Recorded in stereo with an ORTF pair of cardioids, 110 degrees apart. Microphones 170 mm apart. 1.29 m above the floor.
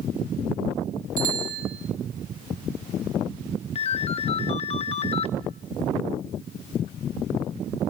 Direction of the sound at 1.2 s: 55° right.